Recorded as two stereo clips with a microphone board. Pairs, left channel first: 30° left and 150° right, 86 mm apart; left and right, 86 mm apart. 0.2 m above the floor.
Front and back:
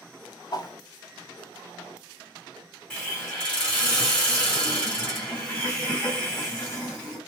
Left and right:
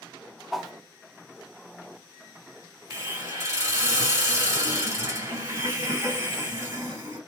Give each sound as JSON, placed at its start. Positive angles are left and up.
{"t": 0.5, "sound": "a whoosh", "azimuth_deg": 0, "distance_m": 0.5}
{"t": 2.9, "sound": "a hiss", "azimuth_deg": -45, "distance_m": 2.0}